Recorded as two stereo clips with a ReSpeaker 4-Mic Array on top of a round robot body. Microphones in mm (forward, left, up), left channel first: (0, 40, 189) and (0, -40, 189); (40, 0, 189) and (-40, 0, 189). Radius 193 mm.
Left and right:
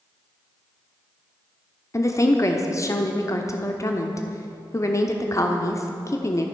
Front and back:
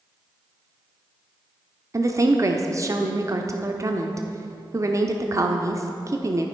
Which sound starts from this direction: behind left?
A woman speaking, at 1.9 s.